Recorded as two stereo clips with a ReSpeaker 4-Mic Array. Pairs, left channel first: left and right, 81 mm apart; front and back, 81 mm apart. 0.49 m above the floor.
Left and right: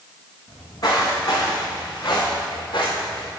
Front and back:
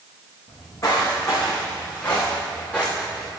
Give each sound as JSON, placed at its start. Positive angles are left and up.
{"t": 0.5, "sound": "footsteps", "azimuth_deg": 50, "distance_m": 2.5}